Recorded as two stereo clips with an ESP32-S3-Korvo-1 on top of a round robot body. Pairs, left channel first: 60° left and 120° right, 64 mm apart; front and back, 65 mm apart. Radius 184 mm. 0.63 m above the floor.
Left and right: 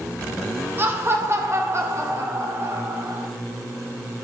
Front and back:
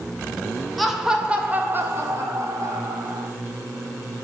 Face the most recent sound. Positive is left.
turn(degrees=-165)